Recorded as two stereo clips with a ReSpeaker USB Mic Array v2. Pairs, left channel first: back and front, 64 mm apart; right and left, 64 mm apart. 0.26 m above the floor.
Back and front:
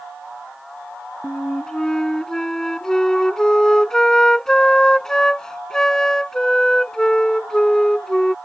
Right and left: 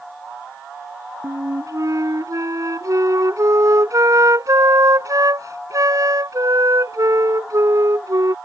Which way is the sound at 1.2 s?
105° left.